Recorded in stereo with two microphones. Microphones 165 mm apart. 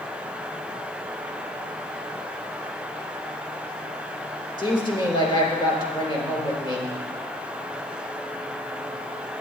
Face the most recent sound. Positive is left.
turn(degrees=30)  # may be behind; listen again after turning